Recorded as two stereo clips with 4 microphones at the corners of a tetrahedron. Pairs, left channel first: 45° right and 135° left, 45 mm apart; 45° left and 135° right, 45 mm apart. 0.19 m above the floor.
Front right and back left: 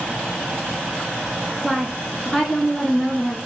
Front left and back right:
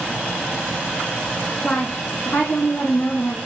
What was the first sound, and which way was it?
A woman speaking, 25° left.